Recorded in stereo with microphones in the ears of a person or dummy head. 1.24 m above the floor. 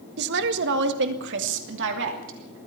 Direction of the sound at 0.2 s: 65° right (ahead or behind).